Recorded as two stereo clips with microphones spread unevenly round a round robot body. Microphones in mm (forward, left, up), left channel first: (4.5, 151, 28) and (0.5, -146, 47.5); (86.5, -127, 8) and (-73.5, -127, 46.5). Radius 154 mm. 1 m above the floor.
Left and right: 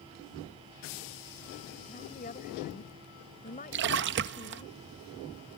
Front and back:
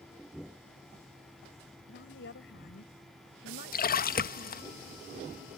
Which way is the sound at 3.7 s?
35° right.